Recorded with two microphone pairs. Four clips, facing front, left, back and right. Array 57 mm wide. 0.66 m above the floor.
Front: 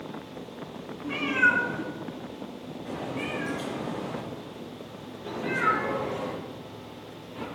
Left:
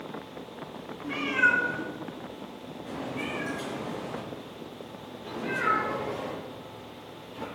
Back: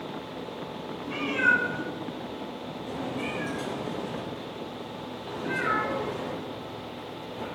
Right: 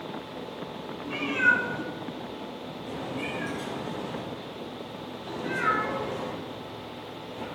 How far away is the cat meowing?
About 5.5 m.